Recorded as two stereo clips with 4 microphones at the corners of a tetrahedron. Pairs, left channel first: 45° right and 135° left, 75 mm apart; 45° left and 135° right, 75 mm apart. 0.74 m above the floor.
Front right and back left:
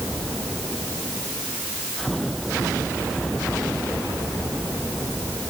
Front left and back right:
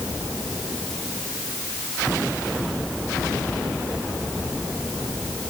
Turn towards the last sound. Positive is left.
No sound to turn to.